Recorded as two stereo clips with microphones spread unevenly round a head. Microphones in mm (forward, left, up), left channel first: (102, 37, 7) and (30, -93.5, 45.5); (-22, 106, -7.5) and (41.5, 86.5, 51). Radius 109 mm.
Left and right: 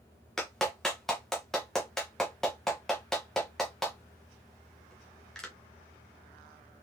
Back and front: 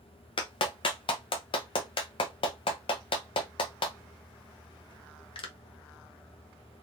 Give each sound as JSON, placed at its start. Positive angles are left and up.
{"t": 0.4, "sound": "a clap", "azimuth_deg": -170, "distance_m": 0.7}